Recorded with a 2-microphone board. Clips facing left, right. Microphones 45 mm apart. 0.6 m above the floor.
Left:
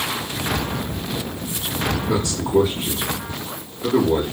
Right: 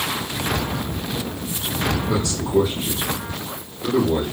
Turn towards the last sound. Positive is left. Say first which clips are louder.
# left 4 dB
turn(degrees=20)  # may be behind; listen again after turning